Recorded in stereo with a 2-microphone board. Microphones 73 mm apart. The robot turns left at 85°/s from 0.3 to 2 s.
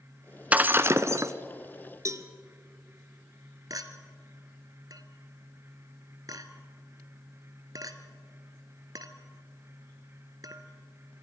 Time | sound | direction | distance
0.5 | breaking glass | 25° right | 0.7 m
2.0 | a cowbell | 45° right (ahead or behind) | 1.1 m
3.7 | a clink | 55° right (ahead or behind) | 1.3 m